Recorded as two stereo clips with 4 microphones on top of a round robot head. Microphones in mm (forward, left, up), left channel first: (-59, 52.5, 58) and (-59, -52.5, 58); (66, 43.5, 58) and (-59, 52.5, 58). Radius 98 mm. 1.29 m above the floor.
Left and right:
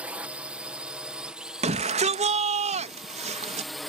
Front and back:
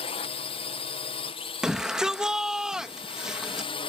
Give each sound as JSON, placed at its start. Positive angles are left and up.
{"t": 0.0, "sound": "a drone", "azimuth_deg": -15}
{"t": 1.6, "sound": "a shout", "azimuth_deg": -100}